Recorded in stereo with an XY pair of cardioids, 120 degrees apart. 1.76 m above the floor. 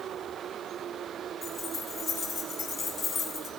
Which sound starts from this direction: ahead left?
Keys jangling, at 1.4 s.